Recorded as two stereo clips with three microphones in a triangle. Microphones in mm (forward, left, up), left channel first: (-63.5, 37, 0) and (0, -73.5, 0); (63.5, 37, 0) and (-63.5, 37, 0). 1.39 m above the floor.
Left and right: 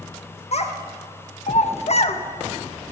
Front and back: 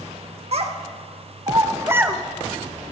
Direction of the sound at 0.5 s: 150° left.